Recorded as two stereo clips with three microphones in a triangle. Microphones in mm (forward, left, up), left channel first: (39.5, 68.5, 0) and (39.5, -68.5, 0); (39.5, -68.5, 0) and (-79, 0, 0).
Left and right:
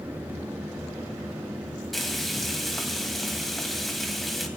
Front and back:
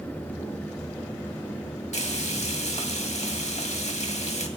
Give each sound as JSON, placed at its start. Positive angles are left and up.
{"t": 1.9, "sound": "frying", "azimuth_deg": 0, "distance_m": 2.5}